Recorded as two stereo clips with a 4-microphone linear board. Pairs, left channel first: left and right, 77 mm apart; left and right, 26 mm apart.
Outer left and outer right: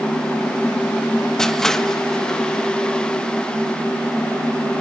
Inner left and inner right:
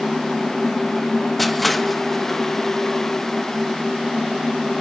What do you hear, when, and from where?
1.4 s crushing: 5° left (ahead or behind), 1.0 m